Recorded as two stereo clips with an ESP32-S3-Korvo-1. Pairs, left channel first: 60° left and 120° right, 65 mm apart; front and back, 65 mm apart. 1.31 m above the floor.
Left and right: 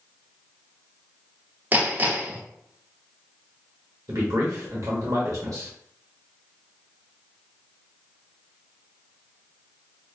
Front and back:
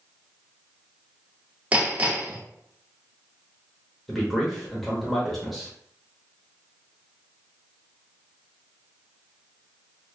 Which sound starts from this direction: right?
A man speaking, at 4.1 s.